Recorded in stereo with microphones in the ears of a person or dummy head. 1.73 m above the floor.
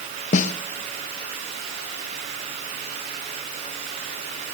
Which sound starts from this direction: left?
A snare drum, at 0.3 s.